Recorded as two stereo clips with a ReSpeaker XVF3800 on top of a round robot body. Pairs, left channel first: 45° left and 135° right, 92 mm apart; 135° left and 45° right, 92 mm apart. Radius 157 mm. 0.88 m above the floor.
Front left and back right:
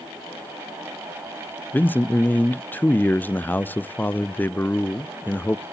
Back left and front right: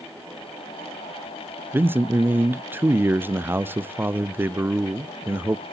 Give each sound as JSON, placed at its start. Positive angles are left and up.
{"t": 1.7, "sound": "a man speaking", "azimuth_deg": -5, "distance_m": 0.5}